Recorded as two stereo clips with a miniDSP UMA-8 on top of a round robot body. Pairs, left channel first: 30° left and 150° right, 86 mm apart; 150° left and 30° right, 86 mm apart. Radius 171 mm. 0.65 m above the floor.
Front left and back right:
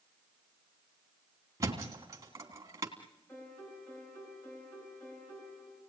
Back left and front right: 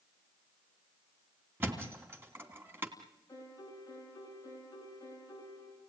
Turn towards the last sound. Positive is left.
turn(degrees=95)